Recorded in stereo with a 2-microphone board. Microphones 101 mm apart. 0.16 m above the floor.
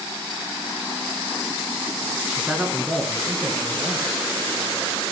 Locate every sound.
2.3 s a man speaking: 10° right (ahead or behind), 1.8 m; by 4.2 s 5° left (ahead or behind), 3 m